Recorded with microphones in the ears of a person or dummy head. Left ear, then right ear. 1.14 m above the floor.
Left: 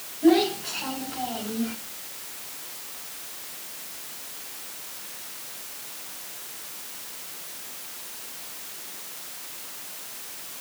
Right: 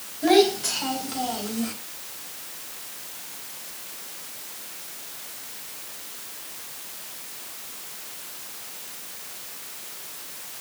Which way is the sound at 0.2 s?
80° right.